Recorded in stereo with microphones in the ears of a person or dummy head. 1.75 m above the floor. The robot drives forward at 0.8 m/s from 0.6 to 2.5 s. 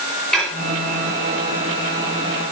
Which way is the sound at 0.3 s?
Centre (ahead or behind).